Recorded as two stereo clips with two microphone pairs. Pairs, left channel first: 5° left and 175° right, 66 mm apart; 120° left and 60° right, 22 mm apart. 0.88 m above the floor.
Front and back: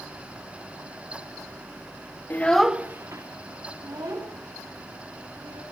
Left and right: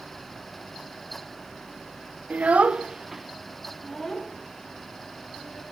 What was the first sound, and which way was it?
A child speaking, 50° right.